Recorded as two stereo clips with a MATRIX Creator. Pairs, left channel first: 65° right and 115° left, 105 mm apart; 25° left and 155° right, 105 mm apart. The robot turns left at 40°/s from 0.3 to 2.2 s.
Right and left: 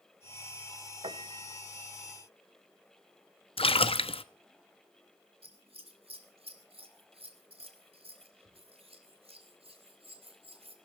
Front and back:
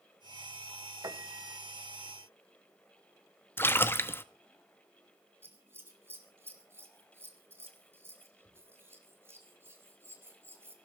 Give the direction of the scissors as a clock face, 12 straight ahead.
7 o'clock.